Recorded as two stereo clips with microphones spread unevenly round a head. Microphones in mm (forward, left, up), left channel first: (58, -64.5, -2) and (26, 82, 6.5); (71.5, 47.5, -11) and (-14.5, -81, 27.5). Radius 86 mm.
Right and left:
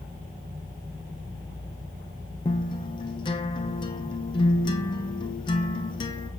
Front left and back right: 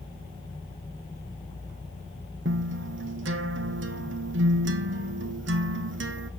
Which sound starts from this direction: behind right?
A guitar, at 2.5 s.